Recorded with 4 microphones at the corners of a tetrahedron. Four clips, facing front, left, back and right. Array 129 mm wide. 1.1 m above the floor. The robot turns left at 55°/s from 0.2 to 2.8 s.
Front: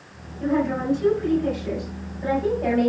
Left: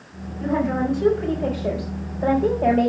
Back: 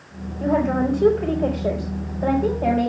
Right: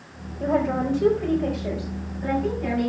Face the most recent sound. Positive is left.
turn(degrees=95)